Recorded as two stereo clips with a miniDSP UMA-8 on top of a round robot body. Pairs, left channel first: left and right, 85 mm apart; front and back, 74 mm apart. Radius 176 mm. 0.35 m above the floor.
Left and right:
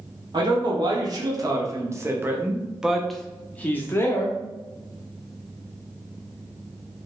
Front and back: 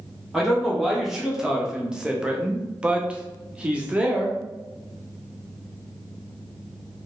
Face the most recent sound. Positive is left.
turn(degrees=115)